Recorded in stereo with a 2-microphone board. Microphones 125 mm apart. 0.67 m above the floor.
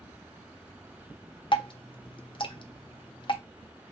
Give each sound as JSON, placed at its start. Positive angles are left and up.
{"t": 1.5, "sound": "dripping", "side_deg": 45, "distance_m": 0.5}